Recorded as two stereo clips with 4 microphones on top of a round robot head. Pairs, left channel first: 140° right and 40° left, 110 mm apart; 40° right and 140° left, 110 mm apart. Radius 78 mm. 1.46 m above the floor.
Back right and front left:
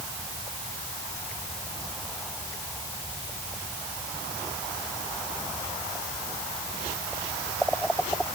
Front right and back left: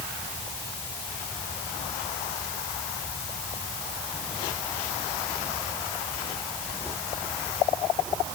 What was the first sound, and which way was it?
Only background noise.